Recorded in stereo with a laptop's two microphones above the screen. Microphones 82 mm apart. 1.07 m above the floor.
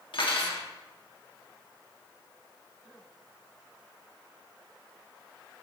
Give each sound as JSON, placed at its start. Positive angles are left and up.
{"t": 0.1, "sound": "cutlery clinking", "side_deg": 70, "distance_m": 1.1}